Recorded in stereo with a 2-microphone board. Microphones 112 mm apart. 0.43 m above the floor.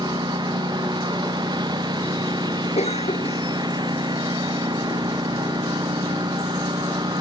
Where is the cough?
80° left.